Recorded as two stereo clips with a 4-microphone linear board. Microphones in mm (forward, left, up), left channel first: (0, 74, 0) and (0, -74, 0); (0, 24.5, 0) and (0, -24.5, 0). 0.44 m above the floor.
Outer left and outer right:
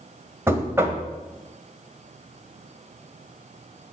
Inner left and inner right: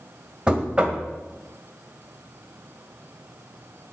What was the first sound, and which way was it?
Knocking, 20° right (ahead or behind).